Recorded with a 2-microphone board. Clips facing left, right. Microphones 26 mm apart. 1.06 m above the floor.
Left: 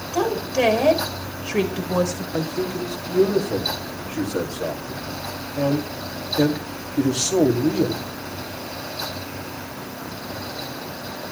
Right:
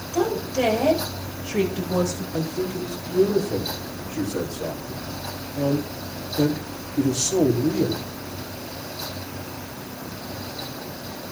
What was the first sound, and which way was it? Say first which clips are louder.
A woman speaking: left 1 dB; 35° left (ahead or behind).